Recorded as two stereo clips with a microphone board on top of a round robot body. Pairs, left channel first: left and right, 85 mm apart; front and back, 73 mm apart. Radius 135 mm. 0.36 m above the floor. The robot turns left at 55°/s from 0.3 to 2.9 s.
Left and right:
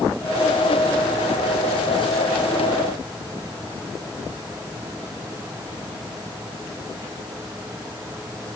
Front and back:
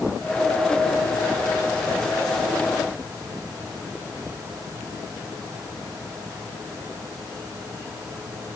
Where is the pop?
I don't hear a pop.